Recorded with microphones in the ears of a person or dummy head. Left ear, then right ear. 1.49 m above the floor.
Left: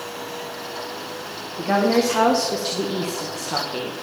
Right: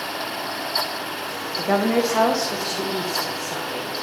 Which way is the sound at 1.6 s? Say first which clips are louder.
Left 1 dB; 35° right (ahead or behind).